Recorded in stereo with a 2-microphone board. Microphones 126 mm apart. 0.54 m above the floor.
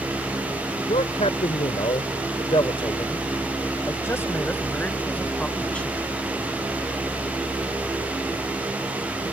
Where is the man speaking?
60° left (ahead or behind); by 6.0 s 5° left (ahead or behind).